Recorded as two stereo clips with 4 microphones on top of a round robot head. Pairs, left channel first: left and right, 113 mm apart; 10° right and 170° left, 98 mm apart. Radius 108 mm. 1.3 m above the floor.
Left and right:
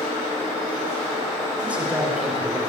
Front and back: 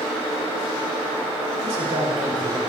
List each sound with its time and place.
1.6 s a man speaking: 170° right, 6.5 m